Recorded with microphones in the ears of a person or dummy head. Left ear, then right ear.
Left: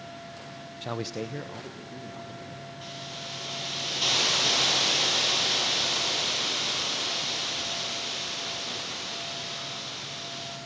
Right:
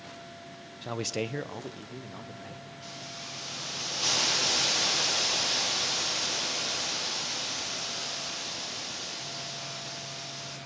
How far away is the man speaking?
About 0.6 m.